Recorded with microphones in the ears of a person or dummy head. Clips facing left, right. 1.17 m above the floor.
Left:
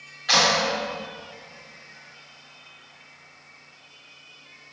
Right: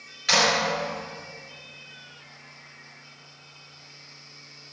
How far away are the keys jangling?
No keys jangling in this recording.